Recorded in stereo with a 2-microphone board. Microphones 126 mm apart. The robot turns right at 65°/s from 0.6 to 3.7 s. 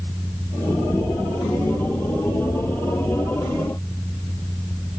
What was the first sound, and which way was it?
Only background noise.